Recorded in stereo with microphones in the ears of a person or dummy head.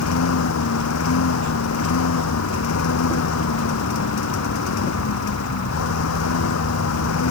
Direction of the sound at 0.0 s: 85° left.